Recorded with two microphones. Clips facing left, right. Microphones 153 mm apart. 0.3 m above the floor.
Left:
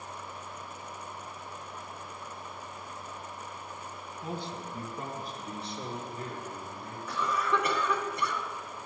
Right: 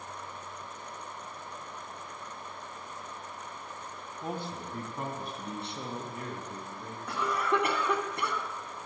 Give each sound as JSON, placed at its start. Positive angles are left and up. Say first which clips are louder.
{"t": 4.2, "sound": "a man speaking", "louder": "right 1 dB", "side_deg": -50, "distance_m": 2.0}
{"t": 7.1, "sound": "a cough", "louder": "right 1 dB", "side_deg": -60, "distance_m": 2.5}